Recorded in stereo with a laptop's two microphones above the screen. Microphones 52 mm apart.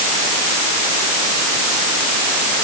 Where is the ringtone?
No ringtone in this recording.